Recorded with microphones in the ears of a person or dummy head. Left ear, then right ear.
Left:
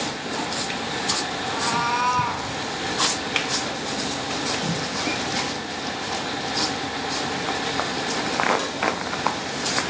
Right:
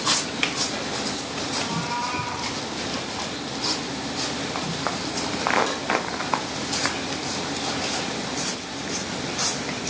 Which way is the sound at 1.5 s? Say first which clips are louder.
Left 5 dB; 65° left (ahead or behind).